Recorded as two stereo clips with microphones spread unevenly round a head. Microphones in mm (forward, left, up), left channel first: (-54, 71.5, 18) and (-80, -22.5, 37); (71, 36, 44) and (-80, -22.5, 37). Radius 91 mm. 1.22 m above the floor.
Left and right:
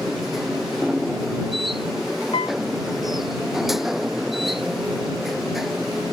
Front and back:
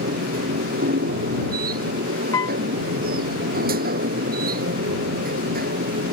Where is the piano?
90° left.